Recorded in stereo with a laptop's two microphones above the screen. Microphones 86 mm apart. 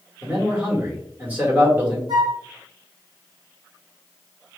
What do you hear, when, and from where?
0.2 s a man speaking: 20° right (ahead or behind), 1.4 m
2.1 s a flute: 55° right (ahead or behind), 1.7 m